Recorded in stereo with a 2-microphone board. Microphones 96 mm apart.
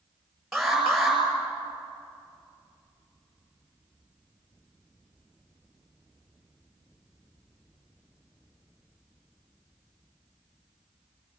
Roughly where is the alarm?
Centre.